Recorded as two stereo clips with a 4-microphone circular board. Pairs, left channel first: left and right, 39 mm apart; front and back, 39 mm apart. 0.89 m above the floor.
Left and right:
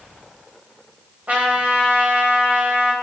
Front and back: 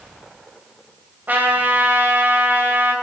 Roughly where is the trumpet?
Behind right.